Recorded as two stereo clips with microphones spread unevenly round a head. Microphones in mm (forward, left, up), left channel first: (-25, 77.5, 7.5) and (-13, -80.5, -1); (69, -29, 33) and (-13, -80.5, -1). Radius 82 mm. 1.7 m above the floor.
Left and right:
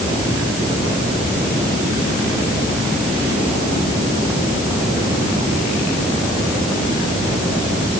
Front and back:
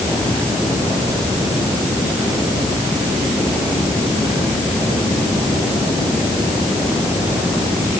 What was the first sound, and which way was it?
Only background noise.